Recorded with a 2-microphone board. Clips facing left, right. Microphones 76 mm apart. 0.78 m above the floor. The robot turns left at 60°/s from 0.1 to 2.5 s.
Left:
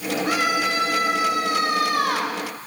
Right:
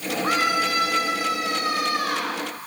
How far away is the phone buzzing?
I don't hear a phone buzzing.